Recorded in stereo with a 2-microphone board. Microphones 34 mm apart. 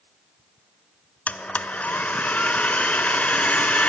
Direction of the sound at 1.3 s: 50° left (ahead or behind).